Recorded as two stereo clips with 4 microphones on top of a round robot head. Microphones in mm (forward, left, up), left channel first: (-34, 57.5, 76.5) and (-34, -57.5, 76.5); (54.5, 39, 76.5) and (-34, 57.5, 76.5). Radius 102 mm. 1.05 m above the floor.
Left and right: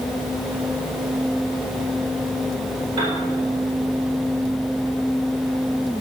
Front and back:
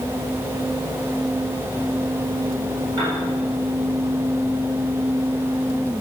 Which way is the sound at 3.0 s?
145° right.